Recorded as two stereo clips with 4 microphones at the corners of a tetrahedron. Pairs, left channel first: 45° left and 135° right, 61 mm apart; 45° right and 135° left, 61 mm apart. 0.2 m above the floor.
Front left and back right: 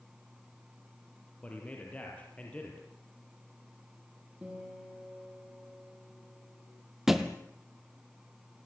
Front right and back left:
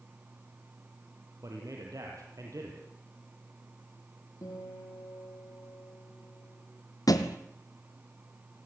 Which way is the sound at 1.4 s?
110° left.